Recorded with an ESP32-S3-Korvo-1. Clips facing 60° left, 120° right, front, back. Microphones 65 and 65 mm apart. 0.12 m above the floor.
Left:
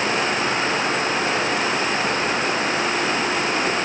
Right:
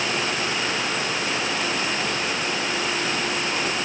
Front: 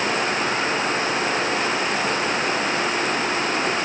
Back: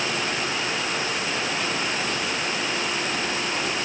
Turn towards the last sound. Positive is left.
No sound to turn to.